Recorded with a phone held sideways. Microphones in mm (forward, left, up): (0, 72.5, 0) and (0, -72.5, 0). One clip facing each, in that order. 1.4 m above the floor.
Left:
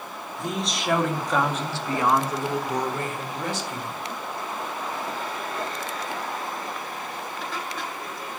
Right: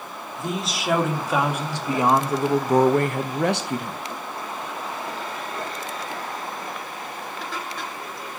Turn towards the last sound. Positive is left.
turn(degrees=-55)  # may be behind; listen again after turning